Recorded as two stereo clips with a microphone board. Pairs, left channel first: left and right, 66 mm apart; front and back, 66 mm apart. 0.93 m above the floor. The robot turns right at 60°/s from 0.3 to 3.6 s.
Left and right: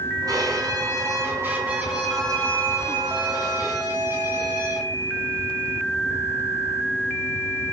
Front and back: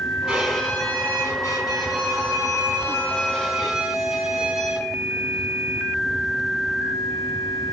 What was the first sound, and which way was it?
A violin, 95° right.